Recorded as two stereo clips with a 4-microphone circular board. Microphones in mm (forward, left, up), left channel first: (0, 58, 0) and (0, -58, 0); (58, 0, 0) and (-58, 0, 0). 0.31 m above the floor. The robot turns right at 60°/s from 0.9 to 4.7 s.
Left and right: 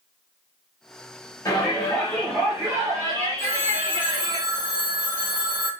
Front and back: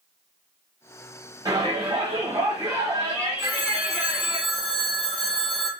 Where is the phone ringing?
100° right, 1.5 m; by 5.7 s 20° right, 1.5 m.